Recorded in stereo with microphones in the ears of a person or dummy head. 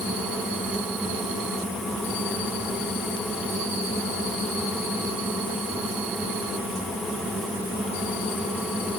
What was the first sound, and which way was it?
Only background noise.